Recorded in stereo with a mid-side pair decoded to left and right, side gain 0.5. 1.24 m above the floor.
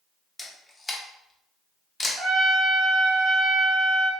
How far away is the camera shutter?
About 0.8 m.